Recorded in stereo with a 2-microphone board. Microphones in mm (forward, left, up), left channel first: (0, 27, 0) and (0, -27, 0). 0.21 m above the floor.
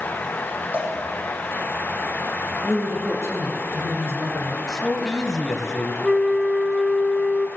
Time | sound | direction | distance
0.7 | a cowbell | 35° right (ahead or behind) | 5 m
2.6 | a woman speaking | 50° right (ahead or behind) | 2.5 m
4.7 | a man speaking | 5° left (ahead or behind) | 1.1 m
6.0 | a flute | 5° left (ahead or behind) | 0.5 m